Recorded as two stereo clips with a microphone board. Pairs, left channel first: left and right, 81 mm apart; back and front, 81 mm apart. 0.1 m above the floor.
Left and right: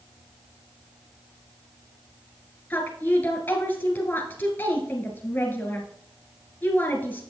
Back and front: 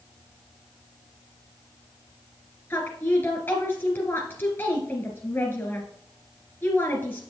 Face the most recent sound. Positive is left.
turn(degrees=140)